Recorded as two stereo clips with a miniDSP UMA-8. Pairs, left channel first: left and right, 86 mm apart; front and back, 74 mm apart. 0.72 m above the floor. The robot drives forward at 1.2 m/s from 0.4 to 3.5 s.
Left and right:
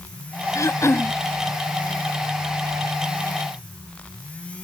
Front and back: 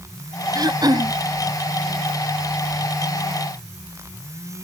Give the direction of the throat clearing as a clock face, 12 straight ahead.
7 o'clock.